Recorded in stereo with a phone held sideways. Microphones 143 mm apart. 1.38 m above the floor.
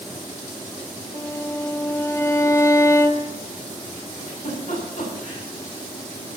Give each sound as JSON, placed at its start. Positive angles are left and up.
{"t": 1.1, "sound": "a violin", "side_deg": 20, "distance_m": 0.8}
{"t": 4.1, "sound": "a giggle", "side_deg": 65, "distance_m": 8.0}